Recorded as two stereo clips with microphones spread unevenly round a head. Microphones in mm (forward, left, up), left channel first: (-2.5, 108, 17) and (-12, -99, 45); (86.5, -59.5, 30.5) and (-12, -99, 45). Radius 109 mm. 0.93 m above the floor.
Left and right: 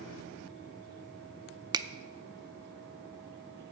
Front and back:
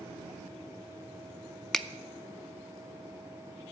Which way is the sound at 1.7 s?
30° right.